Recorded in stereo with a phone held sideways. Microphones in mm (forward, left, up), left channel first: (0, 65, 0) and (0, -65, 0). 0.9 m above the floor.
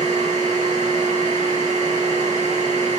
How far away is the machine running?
About 1.6 m.